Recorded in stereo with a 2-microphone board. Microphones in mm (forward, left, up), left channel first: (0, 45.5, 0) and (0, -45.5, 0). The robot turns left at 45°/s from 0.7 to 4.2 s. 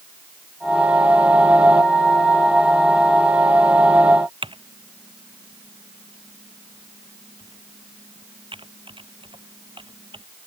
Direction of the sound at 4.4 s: 75° right (ahead or behind).